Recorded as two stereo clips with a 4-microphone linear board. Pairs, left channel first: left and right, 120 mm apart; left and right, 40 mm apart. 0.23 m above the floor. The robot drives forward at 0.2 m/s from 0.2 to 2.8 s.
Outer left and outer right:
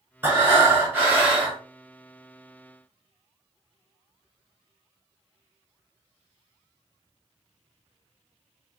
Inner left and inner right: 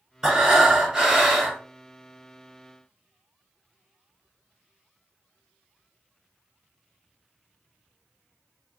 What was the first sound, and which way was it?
Breathing, 15° right (ahead or behind).